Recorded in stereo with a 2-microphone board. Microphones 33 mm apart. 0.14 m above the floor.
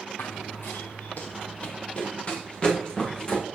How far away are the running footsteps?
About 0.7 m.